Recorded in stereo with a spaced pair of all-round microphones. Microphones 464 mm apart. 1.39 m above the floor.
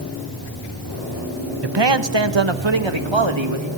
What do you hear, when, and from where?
1.6 s a man speaking: 55° right (ahead or behind), 1.0 m; by 3.7 s 65° right (ahead or behind), 2.5 m